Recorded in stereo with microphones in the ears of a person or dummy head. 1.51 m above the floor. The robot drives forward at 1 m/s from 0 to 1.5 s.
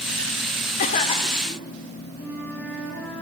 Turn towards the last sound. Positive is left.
turn(degrees=15)  # may be behind; listen again after turning